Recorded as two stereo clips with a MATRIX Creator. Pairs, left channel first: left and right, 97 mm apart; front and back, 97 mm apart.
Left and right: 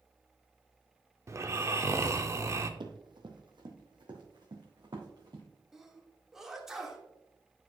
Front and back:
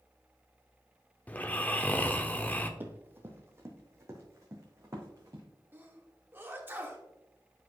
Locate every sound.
1.3 s snoring: 60° right, 0.6 m
2.8 s running footsteps: 115° right, 1.2 m; by 5.4 s 125° right, 2.5 m
5.7 s a sneeze: 165° right, 1.3 m